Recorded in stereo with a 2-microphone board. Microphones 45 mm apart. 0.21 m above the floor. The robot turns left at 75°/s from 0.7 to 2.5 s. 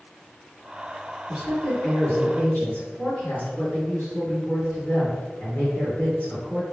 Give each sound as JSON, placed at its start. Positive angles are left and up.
{"t": 1.3, "sound": "a woman speaking", "azimuth_deg": 175, "distance_m": 1.9}